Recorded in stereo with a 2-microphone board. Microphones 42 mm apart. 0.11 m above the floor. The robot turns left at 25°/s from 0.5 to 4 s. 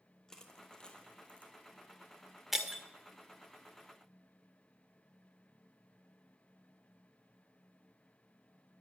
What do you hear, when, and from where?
0.3 s crushing: 15° left (ahead or behind), 1.5 m; by 1.5 s 35° left (ahead or behind), 1.5 m
2.5 s breaking glass: 5° right (ahead or behind), 1.6 m; by 2.8 s 15° right (ahead or behind), 1.6 m